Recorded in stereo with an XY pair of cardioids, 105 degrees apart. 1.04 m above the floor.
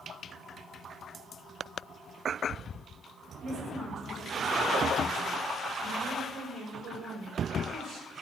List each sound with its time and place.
3.4 s a woman speaking: 35° right, 6.5 m; by 8.1 s 60° right, 5.5 m